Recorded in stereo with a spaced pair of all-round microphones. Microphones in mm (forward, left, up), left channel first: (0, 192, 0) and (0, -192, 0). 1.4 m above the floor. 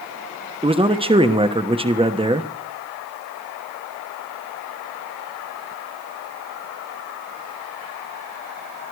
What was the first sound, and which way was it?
A man speaking, 15° right (ahead or behind).